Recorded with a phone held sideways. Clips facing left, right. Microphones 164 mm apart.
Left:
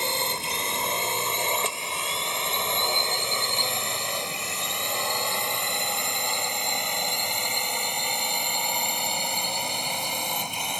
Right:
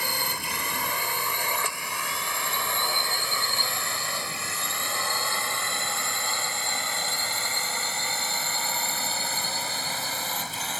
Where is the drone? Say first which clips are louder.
Left 3 dB; 25° left (ahead or behind); by 10.8 s 15° left (ahead or behind).